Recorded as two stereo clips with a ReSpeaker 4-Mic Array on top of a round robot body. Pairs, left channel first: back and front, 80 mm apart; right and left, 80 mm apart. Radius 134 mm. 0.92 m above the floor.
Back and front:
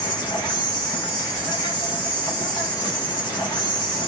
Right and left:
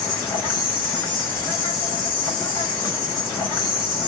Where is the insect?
150° right, 4.5 m.